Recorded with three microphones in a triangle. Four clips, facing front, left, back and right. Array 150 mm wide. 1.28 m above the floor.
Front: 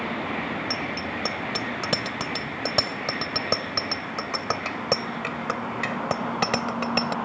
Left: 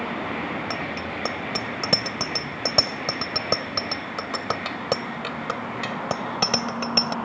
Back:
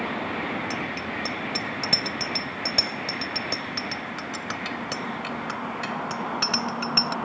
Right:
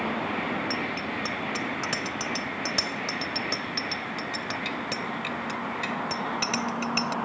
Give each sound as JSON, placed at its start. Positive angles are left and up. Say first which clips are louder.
{"t": 0.7, "sound": "a bicycle bell", "louder": "left 1 dB, front 1 dB", "azimuth_deg": 80}